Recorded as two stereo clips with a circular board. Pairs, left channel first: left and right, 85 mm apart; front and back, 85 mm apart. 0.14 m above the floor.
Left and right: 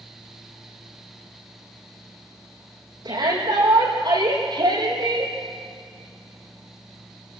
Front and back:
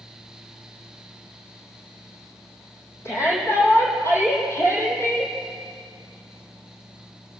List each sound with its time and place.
3.0 s a shout: 55° right, 6.5 m; by 5.3 s 60° right, 4.5 m